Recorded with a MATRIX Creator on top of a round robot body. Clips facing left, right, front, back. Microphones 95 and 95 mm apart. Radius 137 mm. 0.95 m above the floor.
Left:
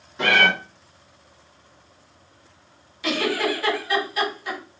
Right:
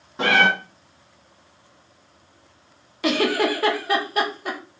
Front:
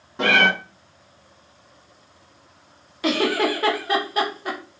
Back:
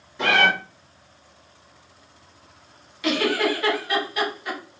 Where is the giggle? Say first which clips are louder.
Right 3 dB, front 1 dB; 55° right, 1.2 m.